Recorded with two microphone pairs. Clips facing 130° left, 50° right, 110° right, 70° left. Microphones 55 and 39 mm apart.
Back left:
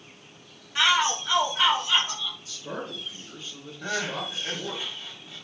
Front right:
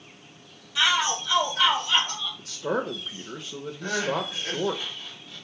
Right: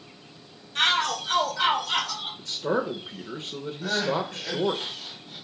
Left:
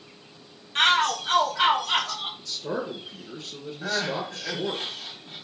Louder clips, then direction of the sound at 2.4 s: Front right 8 dB, right 8 dB; 65° right.